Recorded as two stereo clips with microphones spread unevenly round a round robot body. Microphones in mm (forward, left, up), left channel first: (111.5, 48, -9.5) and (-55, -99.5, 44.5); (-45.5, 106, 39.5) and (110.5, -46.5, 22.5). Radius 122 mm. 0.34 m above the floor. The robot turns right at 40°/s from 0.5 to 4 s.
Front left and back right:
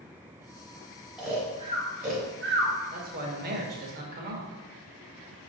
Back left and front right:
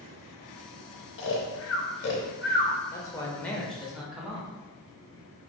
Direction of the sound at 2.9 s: 160° right.